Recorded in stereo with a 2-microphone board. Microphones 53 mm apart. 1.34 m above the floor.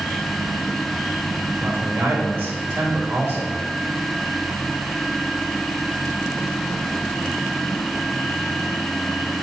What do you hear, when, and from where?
1.6 s a man speaking: 40° right (ahead or behind), 2.5 m